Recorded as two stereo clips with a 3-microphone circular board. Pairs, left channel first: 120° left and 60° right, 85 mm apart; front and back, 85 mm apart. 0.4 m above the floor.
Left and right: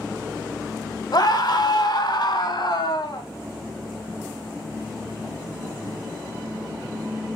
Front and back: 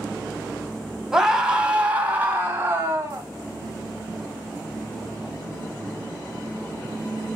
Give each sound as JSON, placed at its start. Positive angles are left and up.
{"t": 1.1, "sound": "a scream", "azimuth_deg": 95, "distance_m": 2.5}